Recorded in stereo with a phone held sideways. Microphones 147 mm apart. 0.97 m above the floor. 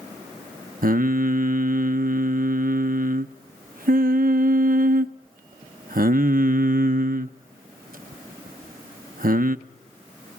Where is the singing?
75° right (ahead or behind), 0.7 m.